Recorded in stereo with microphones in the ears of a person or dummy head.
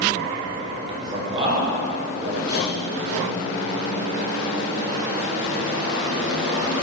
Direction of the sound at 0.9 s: 25° right (ahead or behind).